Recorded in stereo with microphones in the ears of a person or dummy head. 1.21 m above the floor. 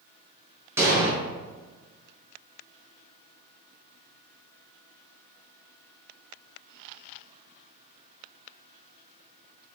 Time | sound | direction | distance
0.8 | an explosion | 15° right (ahead or behind) | 0.7 m